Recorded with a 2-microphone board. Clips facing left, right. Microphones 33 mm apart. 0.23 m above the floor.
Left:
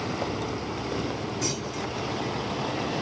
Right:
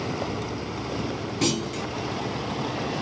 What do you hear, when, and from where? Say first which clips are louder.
1.4 s a clunk: right 4 dB; 75° right (ahead or behind), 1.4 m